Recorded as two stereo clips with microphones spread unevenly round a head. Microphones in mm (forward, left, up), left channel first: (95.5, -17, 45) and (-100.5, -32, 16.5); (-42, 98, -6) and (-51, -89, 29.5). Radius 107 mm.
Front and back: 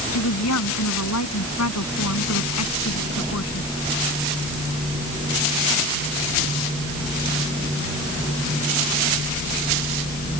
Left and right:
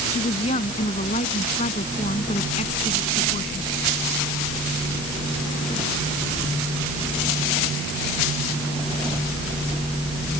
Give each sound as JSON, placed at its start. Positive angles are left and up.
{"t": 0.1, "sound": "a woman speaking", "azimuth_deg": 25}